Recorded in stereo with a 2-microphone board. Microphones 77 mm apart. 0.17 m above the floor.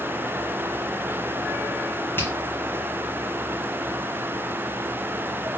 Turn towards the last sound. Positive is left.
turn(degrees=25)  # may be behind; listen again after turning